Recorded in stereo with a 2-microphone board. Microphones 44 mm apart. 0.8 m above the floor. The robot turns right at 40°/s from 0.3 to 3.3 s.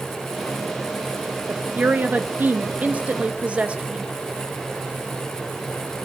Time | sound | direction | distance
1.5 | a woman speaking | 120° right | 0.8 m